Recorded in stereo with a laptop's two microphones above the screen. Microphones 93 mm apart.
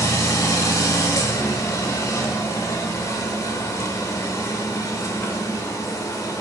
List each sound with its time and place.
0.0 s a machine running: 35° left (ahead or behind), 1.2 m